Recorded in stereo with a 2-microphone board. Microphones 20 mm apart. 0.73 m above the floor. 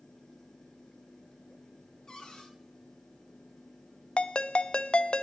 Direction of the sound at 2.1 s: 30° left (ahead or behind).